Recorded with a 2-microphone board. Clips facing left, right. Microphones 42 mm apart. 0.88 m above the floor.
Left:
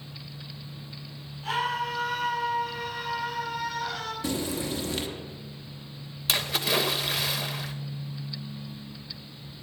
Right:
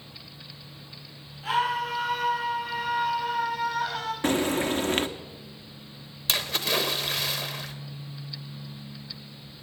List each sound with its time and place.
1.4 s a scream: 10° right (ahead or behind), 8.5 m; by 4.1 s 25° right (ahead or behind), 6 m
4.2 s frying: 50° right (ahead or behind), 0.9 m
6.3 s a splash: 5° left (ahead or behind), 0.9 m